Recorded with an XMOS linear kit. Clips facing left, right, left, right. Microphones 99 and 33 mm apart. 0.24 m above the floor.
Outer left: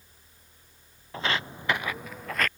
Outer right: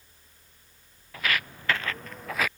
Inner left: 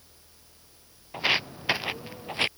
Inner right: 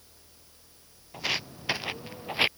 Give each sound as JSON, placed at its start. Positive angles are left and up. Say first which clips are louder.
{"t": 1.1, "sound": "footsteps", "louder": "outer left 1 dB, inner left 6 dB", "side_deg": 30}